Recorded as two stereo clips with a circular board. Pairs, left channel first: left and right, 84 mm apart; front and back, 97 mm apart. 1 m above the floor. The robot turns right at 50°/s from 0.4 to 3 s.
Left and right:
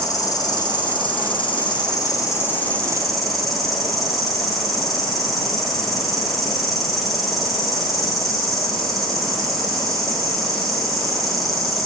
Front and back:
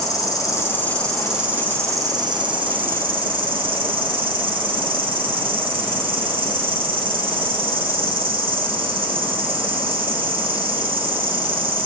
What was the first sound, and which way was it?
An insect, 50° left.